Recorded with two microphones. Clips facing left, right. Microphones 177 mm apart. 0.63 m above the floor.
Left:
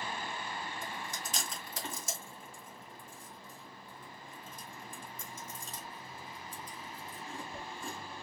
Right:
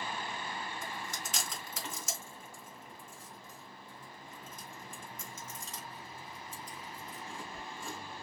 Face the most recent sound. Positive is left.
turn(degrees=35)  # may be behind; listen again after turning